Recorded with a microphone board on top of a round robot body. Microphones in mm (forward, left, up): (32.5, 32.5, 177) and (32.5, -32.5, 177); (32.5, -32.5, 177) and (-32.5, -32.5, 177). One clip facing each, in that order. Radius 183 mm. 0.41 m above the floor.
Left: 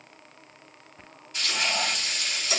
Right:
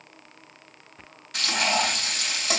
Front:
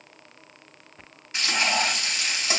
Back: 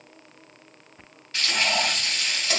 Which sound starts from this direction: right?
Frying, at 1.3 s.